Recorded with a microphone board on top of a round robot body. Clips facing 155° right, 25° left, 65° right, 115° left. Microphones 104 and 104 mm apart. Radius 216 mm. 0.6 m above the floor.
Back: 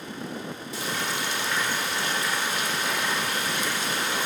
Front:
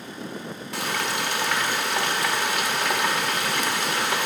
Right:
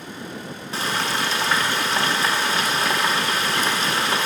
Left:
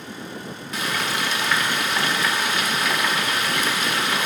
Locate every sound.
0.7 s frying: 10° right, 0.8 m